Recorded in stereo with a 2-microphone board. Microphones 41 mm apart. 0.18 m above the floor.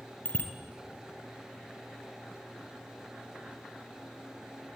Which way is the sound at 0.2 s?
50° left (ahead or behind).